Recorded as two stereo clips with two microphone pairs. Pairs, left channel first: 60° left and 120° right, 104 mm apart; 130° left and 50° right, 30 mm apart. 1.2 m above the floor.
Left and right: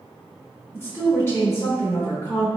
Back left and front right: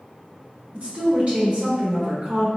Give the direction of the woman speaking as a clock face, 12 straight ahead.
12 o'clock.